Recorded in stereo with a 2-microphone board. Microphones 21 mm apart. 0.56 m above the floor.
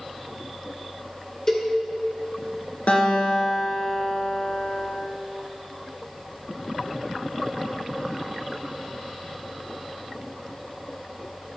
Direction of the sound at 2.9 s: 85° left.